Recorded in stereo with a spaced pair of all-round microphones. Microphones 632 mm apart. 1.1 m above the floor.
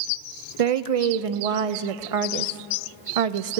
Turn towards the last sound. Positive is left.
turn(degrees=-65)  # may be behind; listen again after turning